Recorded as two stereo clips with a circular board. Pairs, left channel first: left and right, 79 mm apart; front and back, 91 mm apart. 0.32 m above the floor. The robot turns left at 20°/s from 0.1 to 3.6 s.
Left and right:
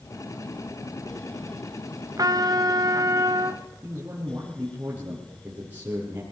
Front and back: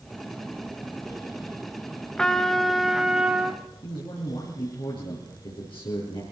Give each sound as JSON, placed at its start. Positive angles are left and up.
{"t": 2.2, "sound": "a trumpet", "azimuth_deg": -80, "distance_m": 1.3}
{"t": 3.8, "sound": "a man speaking", "azimuth_deg": -25, "distance_m": 8.0}